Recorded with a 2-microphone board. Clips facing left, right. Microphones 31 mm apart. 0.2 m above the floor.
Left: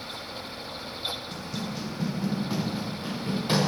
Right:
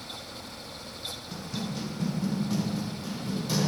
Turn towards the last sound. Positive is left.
turn(degrees=40)  # may be behind; listen again after turning